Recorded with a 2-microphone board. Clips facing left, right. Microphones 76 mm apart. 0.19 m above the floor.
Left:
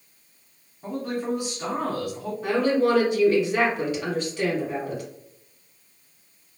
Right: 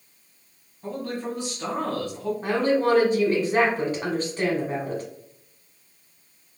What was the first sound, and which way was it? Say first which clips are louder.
A man speaking: left 2 dB; 15° left (ahead or behind).